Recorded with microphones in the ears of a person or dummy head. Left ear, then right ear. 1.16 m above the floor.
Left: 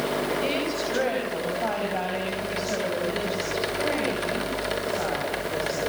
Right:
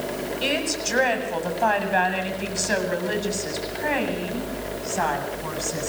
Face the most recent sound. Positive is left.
turn(degrees=-45)  # may be behind; listen again after turning